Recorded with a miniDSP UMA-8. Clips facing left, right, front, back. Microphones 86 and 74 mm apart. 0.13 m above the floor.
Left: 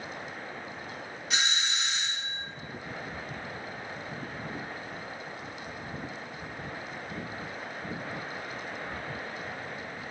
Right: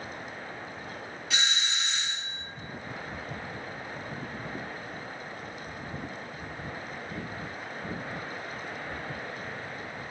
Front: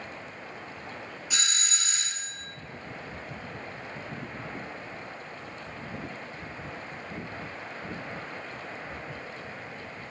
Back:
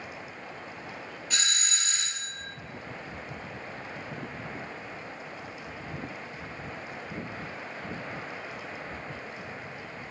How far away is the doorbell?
About 1.7 m.